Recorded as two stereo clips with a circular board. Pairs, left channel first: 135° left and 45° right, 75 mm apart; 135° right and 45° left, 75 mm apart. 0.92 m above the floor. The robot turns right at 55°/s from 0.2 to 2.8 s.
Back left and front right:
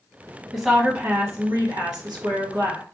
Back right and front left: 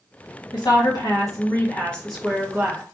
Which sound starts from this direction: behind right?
A woman speaking, at 0.5 s.